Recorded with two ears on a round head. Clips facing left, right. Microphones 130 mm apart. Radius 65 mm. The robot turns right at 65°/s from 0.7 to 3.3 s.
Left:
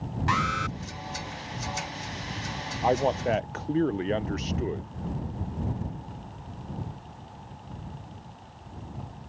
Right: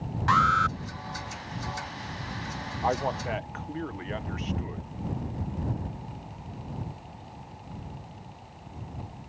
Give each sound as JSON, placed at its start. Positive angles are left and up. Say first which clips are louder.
{"t": 0.3, "sound": "an alarm", "louder": "right 5 dB", "side_deg": 20}
{"t": 2.8, "sound": "a man speaking", "louder": "left 4 dB", "azimuth_deg": 25}